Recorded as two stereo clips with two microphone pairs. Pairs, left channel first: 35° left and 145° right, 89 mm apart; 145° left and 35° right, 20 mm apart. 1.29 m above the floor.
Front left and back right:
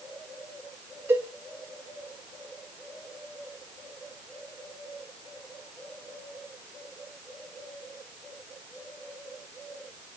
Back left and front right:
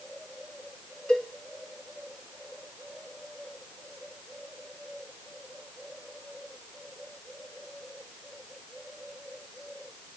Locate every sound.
1.1 s a cowbell: 155° left, 3.5 m